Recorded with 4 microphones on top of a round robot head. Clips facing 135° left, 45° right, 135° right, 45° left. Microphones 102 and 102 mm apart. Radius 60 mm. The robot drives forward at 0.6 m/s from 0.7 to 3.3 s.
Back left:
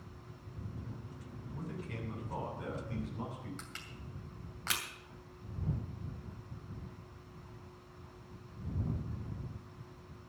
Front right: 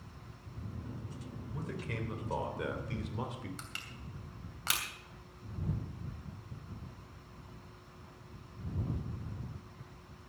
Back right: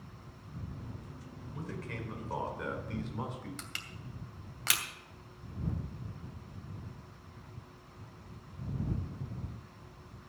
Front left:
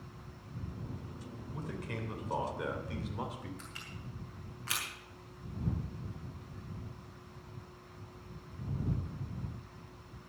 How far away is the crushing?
About 2.5 m.